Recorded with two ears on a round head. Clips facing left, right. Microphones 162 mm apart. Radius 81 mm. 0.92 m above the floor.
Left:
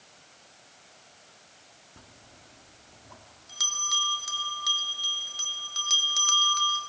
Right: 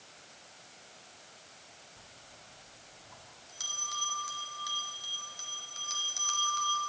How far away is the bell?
About 1.9 m.